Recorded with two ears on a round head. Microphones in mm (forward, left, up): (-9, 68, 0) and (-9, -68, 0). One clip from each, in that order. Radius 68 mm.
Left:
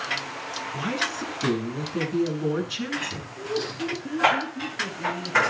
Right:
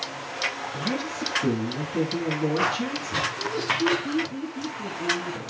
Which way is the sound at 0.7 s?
75° left (ahead or behind).